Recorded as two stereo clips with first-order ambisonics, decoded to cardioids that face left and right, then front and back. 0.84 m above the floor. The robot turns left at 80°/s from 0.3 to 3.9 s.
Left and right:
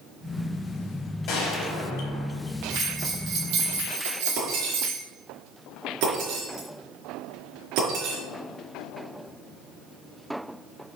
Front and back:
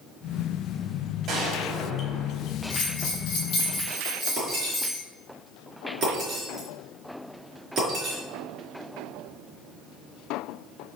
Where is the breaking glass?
120° right, 5 m.